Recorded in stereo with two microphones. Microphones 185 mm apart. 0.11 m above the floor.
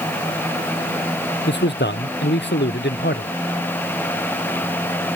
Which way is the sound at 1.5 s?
70° left (ahead or behind).